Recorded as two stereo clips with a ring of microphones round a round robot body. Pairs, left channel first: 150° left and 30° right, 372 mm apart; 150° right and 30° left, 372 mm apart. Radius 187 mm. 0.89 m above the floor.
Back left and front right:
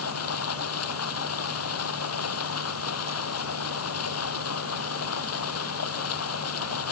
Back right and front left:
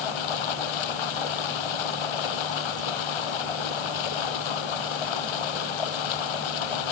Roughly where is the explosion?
I don't hear an explosion.